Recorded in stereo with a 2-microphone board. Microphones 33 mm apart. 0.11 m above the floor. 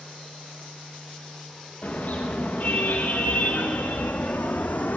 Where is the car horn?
45° left (ahead or behind), 7 m; by 5.0 s 70° left (ahead or behind), 3.5 m.